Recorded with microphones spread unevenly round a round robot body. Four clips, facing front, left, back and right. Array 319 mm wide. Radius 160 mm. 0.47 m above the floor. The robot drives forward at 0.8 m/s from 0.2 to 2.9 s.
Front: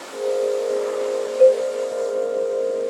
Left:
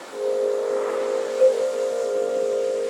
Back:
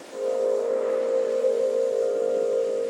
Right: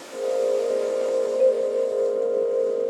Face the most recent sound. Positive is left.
turn(degrees=-25)